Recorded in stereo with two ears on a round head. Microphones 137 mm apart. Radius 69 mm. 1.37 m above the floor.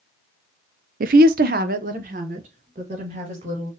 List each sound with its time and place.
1.0 s a woman speaking: 60° right (ahead or behind), 0.5 m; by 3.7 s 45° right (ahead or behind), 2.5 m